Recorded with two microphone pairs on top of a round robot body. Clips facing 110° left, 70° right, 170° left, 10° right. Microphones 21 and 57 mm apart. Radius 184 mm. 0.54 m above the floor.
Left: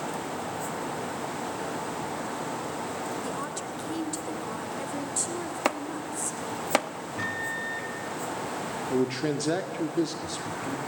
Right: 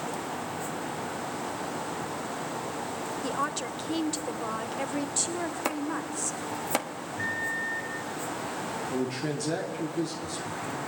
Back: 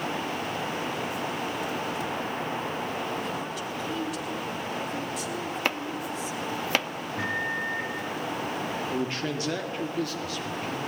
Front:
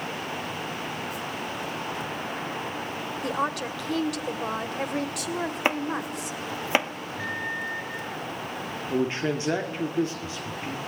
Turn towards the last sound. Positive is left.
turn(degrees=50)